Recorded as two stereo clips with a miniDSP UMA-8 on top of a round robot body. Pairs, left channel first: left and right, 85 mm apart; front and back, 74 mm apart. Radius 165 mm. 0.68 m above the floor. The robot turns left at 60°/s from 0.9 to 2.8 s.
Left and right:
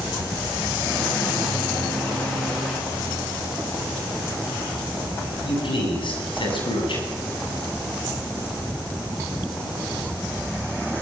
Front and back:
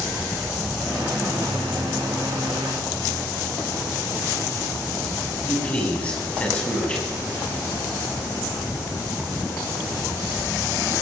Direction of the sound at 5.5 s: 70° left.